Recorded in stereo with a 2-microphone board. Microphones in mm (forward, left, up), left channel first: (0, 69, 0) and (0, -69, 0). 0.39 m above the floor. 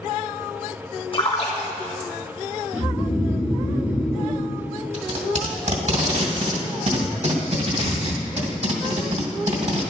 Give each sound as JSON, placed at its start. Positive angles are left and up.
{"t": 1.1, "sound": "a splash", "side_deg": 40, "distance_m": 1.8}
{"t": 2.7, "sound": "snoring", "side_deg": -15, "distance_m": 4.0}
{"t": 4.9, "sound": "tape being pulled", "side_deg": -60, "distance_m": 2.5}